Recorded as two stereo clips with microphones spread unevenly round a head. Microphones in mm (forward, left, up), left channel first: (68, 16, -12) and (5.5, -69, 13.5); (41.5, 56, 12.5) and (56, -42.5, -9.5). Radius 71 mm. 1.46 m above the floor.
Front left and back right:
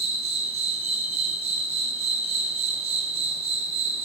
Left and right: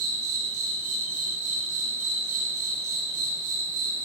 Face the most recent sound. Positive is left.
turn(degrees=-110)